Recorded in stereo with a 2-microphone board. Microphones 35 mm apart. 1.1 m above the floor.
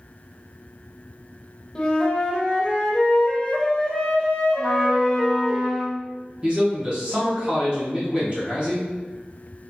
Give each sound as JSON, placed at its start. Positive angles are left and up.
{"t": 1.8, "sound": "a flute", "side_deg": 20, "distance_m": 0.6}
{"t": 4.6, "sound": "a trumpet", "side_deg": 10, "distance_m": 0.6}
{"t": 6.4, "sound": "a man speaking", "side_deg": -30, "distance_m": 0.8}